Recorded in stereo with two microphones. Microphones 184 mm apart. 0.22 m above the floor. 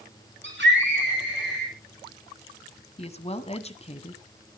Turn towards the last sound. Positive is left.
turn(degrees=35)  # may be behind; listen again after turning